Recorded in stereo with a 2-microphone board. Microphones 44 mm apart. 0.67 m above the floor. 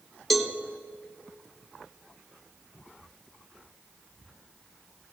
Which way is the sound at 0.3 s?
Centre (ahead or behind).